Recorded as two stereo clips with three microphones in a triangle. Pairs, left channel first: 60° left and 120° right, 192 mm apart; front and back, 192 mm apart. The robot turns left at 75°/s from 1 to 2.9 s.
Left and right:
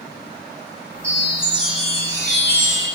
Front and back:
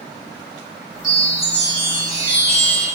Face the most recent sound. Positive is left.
turn(degrees=175)